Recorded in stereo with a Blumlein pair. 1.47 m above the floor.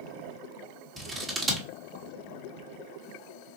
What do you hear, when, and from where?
1.0 s scissors: 15° right, 1.4 m